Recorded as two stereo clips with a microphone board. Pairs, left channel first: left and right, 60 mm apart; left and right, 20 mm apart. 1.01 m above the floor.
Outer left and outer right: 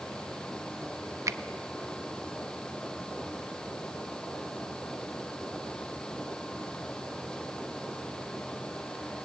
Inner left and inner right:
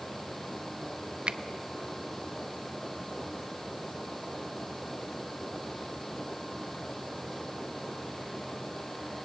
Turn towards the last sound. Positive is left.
turn(degrees=-65)  # may be behind; listen again after turning